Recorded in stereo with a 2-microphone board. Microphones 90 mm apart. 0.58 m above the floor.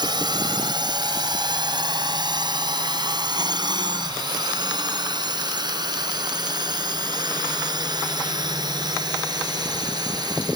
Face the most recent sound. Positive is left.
turn(degrees=-45)  # may be behind; listen again after turning